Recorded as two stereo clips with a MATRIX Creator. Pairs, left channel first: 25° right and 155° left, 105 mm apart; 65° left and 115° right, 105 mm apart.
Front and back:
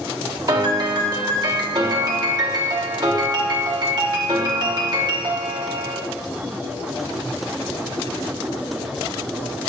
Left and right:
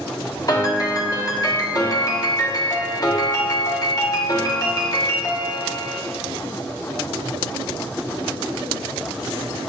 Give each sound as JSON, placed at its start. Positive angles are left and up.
{"t": 0.5, "sound": "a piano", "azimuth_deg": 115, "distance_m": 1.2}